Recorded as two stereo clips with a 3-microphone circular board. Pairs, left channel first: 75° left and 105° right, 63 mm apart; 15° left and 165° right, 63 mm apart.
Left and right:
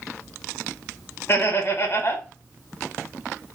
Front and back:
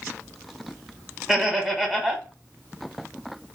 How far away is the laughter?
About 1.1 m.